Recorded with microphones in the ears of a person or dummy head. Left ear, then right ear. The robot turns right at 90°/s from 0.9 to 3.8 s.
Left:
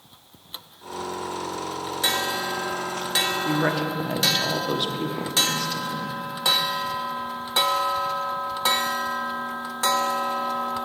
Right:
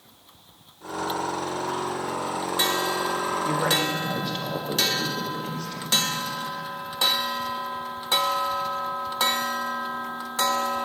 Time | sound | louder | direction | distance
3.5 | a woman speaking | right 1 dB | straight ahead | 1.0 m